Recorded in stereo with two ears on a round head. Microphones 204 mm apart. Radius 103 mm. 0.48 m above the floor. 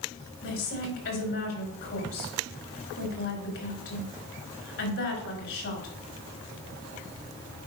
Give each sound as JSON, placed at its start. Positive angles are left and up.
{"t": 0.4, "sound": "a woman speaking", "side_deg": 60, "distance_m": 3.5}